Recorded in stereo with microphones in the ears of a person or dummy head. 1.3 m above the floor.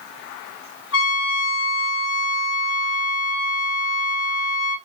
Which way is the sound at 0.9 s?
80° left.